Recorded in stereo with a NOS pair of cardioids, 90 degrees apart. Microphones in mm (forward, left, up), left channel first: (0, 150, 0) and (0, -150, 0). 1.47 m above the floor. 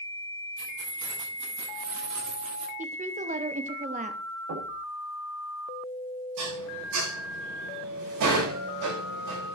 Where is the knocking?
60° right, 8 m.